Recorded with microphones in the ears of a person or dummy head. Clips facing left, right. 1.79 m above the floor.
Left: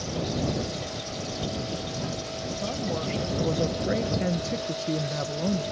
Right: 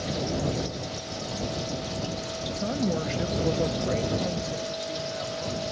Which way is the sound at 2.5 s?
25° right (ahead or behind).